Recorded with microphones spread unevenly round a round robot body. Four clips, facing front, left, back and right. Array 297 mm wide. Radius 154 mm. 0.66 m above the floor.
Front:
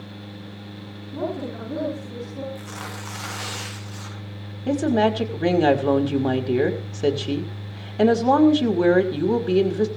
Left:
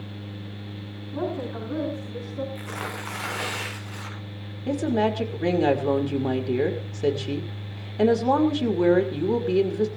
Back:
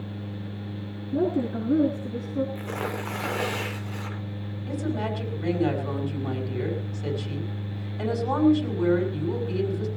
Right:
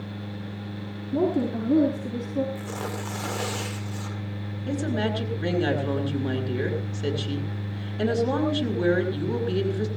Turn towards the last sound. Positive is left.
turn(degrees=20)